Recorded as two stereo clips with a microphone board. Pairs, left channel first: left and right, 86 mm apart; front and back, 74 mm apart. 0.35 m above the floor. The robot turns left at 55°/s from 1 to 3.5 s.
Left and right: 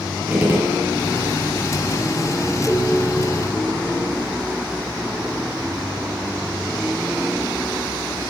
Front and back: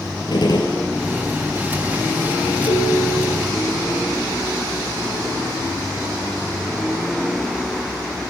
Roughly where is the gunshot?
Ahead.